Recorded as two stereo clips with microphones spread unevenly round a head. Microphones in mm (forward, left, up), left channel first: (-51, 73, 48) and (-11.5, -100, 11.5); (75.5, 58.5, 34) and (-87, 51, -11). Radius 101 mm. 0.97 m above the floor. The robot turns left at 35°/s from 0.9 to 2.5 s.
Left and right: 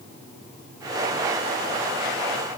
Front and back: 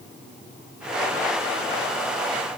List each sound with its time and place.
Only background noise.